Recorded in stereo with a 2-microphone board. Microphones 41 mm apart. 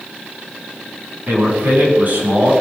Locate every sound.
1.3 s a man speaking: 40° right (ahead or behind), 7.5 m